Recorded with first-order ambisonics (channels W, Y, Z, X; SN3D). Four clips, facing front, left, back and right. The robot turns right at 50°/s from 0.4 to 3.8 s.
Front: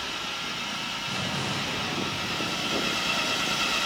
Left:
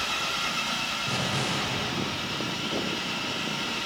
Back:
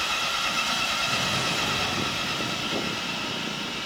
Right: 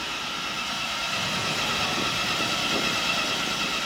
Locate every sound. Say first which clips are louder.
0.0 s an engine running: left 2 dB, back 6 dB; 160° left, 1.5 m; by 3.9 s 30° right, 1.5 m
1.1 s an explosion: right 1 dB, back 4 dB; 100° left, 3 m; by 3.2 s 155° right, 3 m